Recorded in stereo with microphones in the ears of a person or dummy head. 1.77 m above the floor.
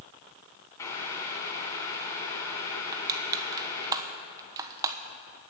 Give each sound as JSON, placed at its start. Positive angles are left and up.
{"t": 0.8, "sound": "boiling", "side_deg": 20, "distance_m": 2.5}
{"t": 2.9, "sound": "crushing", "side_deg": -20, "distance_m": 1.1}